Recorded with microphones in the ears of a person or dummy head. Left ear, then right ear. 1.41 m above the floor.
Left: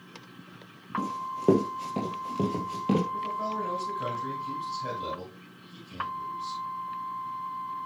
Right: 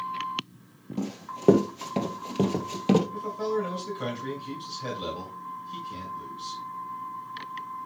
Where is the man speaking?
45° right (ahead or behind), 6.5 m.